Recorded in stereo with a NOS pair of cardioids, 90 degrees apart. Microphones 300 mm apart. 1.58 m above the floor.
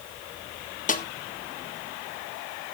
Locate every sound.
0.9 s a snare drum: 25° left, 1.3 m